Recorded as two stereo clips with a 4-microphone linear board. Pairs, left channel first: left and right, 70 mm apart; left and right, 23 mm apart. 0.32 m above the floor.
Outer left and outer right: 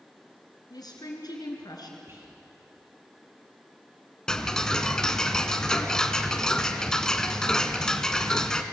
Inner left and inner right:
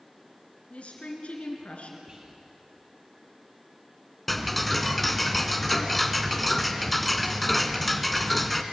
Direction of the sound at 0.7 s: 75° left (ahead or behind).